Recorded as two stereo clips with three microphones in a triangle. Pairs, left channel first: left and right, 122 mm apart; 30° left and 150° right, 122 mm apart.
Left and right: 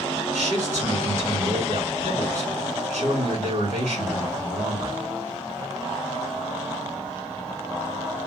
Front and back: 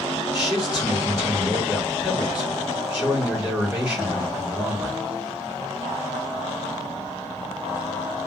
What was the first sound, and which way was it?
A man speaking, 70° right.